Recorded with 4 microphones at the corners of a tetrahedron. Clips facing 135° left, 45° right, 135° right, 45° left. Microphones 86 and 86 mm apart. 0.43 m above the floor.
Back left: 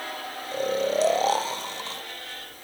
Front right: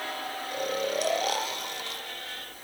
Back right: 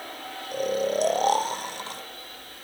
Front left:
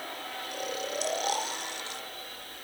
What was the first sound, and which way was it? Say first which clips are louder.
Snoring: back left 6 dB, back right 11 dB; 170° right.